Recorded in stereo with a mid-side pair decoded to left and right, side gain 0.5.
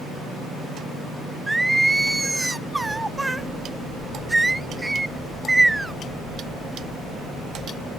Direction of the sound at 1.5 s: 15° right.